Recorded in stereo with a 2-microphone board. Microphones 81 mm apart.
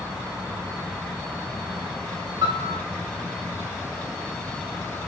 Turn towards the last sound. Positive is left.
turn(degrees=-50)  # may be behind; listen again after turning